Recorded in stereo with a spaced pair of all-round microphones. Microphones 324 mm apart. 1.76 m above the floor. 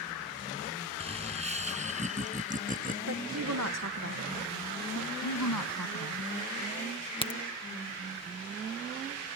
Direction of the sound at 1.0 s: 20° right (ahead or behind).